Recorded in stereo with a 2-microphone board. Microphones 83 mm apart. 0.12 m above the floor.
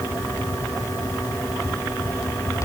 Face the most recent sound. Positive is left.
No sound to turn to.